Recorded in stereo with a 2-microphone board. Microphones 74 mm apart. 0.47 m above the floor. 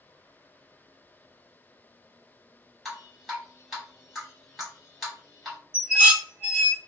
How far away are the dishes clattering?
About 0.6 m.